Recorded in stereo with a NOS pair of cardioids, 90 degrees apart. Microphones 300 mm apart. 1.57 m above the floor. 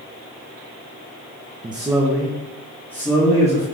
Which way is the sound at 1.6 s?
15° right.